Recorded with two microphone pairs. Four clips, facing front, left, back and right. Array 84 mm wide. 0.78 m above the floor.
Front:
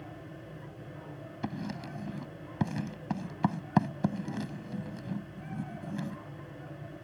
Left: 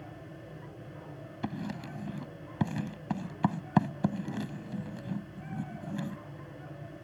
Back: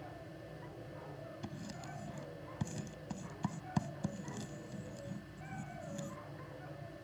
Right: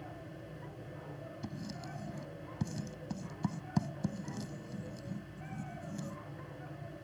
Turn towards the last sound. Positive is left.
turn(degrees=45)